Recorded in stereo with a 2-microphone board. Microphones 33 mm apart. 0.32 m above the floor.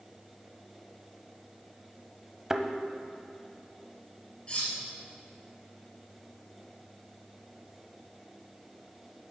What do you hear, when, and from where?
2.5 s a thud: 20° right (ahead or behind), 0.6 m
4.5 s cutlery clinking: 30° left (ahead or behind), 3.5 m